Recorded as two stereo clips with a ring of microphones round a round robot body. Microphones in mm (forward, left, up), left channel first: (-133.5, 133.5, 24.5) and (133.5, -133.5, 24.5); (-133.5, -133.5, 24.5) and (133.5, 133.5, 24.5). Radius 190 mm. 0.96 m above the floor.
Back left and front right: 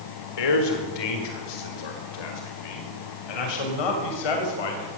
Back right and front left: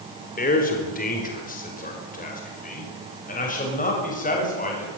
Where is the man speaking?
155° left, 4 m.